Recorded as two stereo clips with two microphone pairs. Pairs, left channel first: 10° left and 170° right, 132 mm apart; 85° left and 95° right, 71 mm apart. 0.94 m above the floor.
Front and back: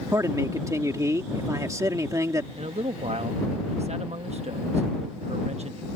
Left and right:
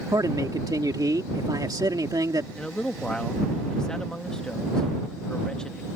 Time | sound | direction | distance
0.1 | a man speaking | 105° right | ?
2.5 | a man speaking | 160° left | ?